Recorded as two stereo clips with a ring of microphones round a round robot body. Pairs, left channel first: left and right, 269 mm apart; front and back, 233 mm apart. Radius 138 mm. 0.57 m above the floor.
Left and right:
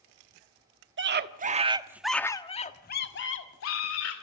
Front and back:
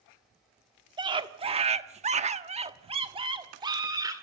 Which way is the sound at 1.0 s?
115° right.